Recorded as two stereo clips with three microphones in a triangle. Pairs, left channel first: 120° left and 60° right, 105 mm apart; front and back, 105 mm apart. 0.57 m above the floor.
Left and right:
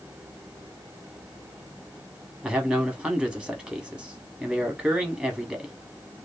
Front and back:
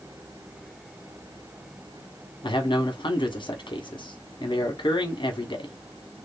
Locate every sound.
2.4 s a man speaking: 15° left, 1.0 m